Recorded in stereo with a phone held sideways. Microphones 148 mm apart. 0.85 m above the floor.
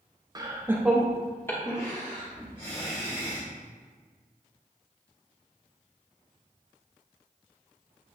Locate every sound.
0.3 s laughter: 25° right (ahead or behind), 0.7 m; by 3.5 s 35° left (ahead or behind), 1.9 m